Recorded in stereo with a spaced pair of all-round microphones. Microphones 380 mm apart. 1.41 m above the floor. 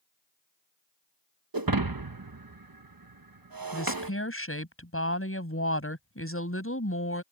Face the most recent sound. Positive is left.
turn(degrees=35)  # may be behind; listen again after turning